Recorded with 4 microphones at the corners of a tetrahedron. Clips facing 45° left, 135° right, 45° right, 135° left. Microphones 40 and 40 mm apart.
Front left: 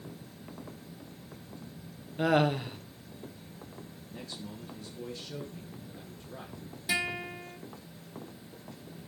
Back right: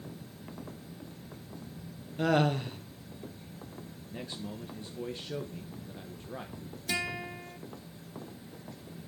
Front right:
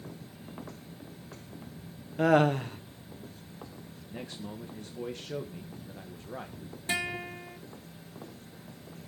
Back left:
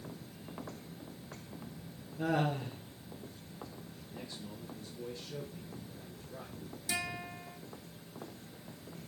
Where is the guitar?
30° right, 1.3 m.